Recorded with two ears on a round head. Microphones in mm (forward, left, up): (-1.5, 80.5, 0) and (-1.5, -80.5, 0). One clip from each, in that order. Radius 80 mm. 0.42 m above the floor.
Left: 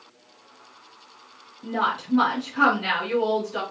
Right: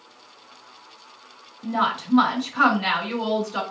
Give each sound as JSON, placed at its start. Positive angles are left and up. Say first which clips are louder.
{"t": 1.6, "sound": "a woman speaking", "louder": "right 1 dB", "side_deg": -35, "distance_m": 2.5}